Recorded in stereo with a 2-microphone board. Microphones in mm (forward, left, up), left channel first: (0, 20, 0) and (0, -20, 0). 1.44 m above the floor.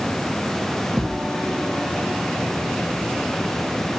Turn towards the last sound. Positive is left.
turn(degrees=-20)  # may be behind; listen again after turning